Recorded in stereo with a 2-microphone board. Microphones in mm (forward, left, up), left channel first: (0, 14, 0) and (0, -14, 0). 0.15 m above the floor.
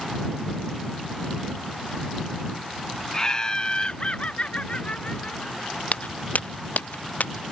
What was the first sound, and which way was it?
Laughter, 25° left (ahead or behind).